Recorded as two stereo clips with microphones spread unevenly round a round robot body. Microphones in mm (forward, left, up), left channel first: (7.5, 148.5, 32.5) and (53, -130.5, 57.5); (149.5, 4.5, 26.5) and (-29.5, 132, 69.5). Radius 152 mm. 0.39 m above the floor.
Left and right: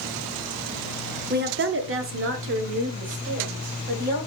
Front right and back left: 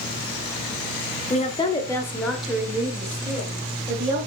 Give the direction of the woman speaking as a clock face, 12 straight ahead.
1 o'clock.